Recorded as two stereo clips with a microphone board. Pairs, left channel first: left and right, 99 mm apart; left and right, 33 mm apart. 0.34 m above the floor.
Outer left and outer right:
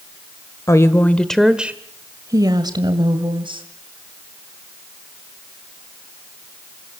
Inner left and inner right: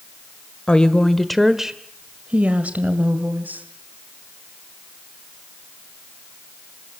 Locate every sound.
0.7 s a woman speaking: 30° left (ahead or behind), 1.5 m; by 3.6 s 60° right (ahead or behind), 2.5 m